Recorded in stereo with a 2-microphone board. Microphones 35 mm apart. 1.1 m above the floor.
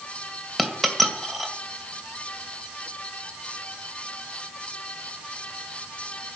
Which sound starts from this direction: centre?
A dropped coin, at 0.6 s.